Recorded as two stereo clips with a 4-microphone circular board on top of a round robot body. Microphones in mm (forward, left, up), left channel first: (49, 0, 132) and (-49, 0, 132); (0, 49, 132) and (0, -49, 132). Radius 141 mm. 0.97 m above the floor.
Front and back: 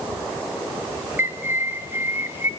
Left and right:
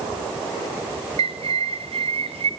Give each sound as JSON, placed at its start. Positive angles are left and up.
{"t": 1.2, "sound": "a bird", "azimuth_deg": -110, "distance_m": 1.4}